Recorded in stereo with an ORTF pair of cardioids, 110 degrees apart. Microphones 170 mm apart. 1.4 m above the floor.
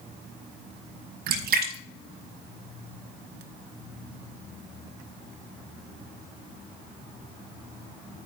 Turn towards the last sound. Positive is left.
turn(degrees=-65)